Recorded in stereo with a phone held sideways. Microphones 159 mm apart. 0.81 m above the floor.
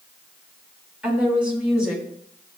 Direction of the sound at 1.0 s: 5° right (ahead or behind).